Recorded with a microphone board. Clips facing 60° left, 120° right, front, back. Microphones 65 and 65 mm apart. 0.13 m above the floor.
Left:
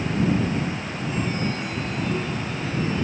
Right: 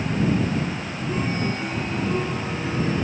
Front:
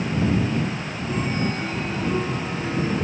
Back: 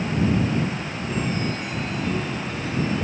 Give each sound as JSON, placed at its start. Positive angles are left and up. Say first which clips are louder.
{"t": 1.1, "sound": "a chime", "louder": "right 2 dB, front 1 dB", "azimuth_deg": -60}